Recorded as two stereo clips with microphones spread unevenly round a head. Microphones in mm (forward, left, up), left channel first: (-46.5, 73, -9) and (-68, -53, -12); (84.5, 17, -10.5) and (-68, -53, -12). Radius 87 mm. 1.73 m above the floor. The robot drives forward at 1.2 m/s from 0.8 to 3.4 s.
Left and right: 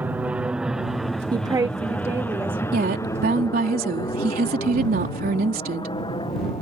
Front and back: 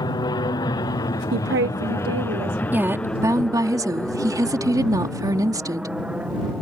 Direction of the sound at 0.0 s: 25° right.